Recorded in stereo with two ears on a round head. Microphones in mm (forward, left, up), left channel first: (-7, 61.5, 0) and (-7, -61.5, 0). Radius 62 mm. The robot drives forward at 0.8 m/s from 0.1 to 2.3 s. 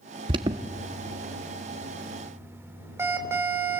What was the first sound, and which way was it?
An alarm, 35° right (ahead or behind).